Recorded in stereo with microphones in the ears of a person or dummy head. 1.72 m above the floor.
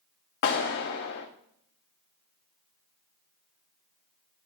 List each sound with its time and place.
0.4 s a clap: 55° left (ahead or behind), 0.9 m